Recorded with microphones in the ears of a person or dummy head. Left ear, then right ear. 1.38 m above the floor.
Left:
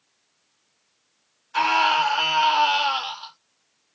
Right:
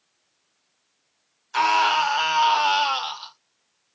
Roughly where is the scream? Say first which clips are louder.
Even; right.